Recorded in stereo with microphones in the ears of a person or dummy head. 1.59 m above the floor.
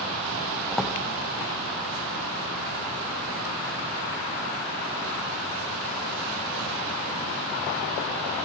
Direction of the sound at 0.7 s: Centre (ahead or behind).